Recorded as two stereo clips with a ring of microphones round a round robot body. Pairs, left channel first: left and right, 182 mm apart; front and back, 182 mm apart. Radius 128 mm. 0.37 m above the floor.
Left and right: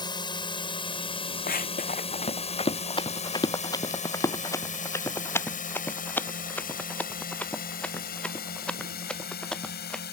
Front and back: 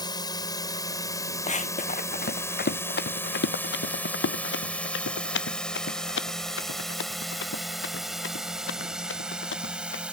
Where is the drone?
45° left; by 10.1 s 95° left.